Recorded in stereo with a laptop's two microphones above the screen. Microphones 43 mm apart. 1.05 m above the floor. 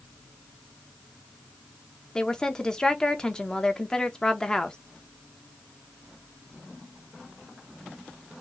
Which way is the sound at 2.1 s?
15° left (ahead or behind).